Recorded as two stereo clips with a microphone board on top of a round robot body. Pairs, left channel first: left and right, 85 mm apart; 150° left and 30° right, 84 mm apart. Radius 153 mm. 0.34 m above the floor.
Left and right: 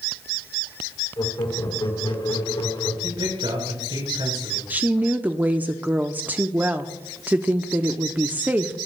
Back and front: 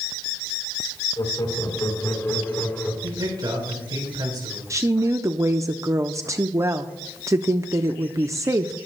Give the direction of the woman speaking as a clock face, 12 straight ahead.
1 o'clock.